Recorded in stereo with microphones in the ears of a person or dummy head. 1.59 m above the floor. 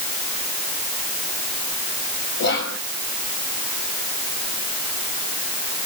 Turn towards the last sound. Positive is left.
turn(degrees=65)  # may be behind; listen again after turning